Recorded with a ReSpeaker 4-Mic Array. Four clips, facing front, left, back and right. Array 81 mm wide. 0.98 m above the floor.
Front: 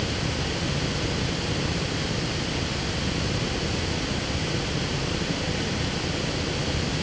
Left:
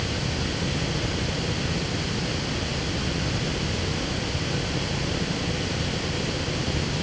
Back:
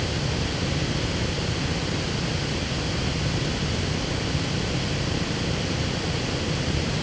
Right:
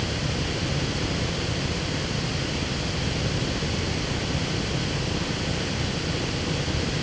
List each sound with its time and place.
Only background noise.